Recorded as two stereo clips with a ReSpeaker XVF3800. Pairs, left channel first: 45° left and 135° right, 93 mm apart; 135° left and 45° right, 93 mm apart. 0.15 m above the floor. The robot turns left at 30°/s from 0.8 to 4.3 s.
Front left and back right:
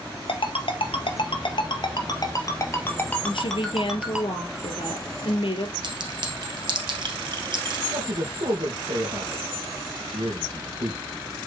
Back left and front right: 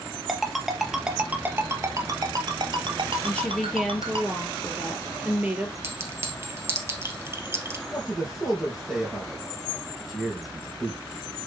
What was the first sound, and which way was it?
A ringtone, 40° left.